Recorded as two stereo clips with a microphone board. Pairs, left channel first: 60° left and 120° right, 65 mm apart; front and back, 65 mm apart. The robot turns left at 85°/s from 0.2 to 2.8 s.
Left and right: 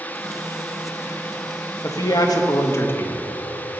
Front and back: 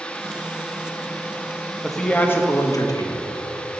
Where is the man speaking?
95° left, 1.4 m; by 3.3 s 10° left, 1.4 m.